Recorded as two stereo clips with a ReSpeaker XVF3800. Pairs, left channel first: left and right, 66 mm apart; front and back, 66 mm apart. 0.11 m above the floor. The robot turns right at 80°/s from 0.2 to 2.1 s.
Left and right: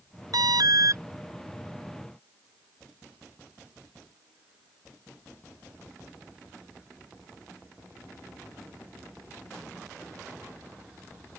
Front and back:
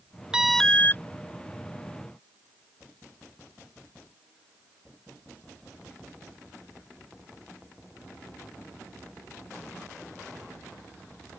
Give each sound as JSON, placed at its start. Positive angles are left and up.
{"t": 0.3, "sound": "an alarm", "azimuth_deg": -105}